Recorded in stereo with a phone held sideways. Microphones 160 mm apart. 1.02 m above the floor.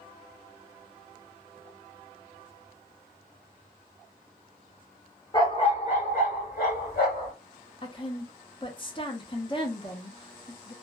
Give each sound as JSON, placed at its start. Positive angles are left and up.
{"t": 5.3, "sound": "a dog barking", "side_deg": 25, "distance_m": 1.0}
{"t": 7.8, "sound": "a woman speaking", "side_deg": 30, "distance_m": 0.7}